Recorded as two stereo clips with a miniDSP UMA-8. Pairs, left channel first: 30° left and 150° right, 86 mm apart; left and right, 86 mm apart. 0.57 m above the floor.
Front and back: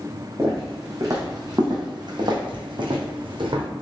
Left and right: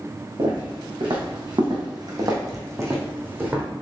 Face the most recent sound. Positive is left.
turn(degrees=-160)